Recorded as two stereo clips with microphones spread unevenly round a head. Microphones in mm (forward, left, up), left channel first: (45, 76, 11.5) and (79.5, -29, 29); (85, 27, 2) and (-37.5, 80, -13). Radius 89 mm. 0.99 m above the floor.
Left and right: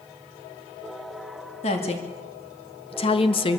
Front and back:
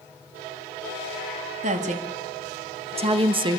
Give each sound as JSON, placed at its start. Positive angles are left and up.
{"t": 1.6, "sound": "a woman speaking", "azimuth_deg": 135, "distance_m": 2.0}